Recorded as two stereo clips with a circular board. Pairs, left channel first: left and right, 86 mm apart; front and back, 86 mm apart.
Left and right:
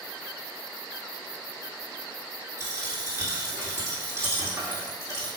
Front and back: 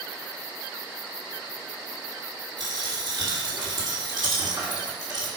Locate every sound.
2.6 s a dropped coin: 145° right, 1.9 m